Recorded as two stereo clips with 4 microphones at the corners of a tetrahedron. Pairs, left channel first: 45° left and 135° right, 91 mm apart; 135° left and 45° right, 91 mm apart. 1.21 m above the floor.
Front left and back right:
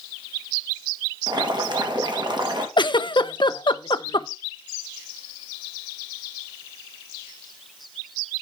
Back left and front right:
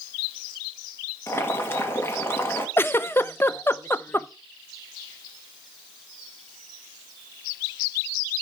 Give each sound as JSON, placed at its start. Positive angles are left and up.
{"t": 1.3, "sound": "boiling", "azimuth_deg": -165, "distance_m": 2.0}
{"t": 2.8, "sound": "a giggle", "azimuth_deg": 70, "distance_m": 0.6}